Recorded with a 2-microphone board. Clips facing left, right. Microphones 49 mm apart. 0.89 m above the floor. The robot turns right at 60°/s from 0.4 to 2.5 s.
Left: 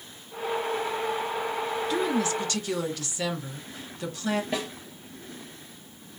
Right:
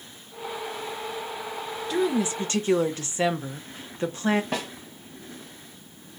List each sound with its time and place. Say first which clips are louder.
1.9 s a woman speaking: right 3 dB; straight behind, 0.7 m; by 4.4 s 145° right, 0.7 m
4.5 s a snare drum: even; 65° right (ahead or behind), 1.5 m